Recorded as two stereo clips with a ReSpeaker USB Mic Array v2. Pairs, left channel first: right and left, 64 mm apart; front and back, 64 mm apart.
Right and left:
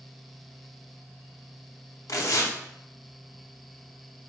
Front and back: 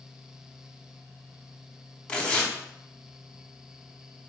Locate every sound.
2.1 s tearing paper: 70° right, 0.7 m